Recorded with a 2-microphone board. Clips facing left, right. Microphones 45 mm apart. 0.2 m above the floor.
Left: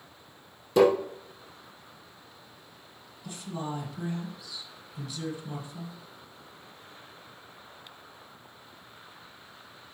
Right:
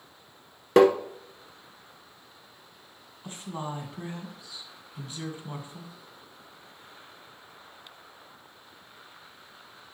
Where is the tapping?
65° right (ahead or behind), 1.2 m.